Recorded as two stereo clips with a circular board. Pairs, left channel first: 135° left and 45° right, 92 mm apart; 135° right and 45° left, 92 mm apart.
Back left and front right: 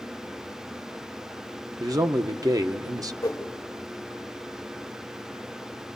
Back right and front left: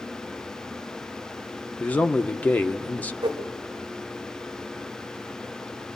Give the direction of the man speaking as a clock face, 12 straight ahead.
2 o'clock.